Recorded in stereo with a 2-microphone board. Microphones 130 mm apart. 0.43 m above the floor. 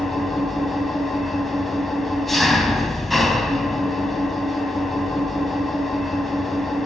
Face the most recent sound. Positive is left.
turn(degrees=0)  # may be behind; listen again after turning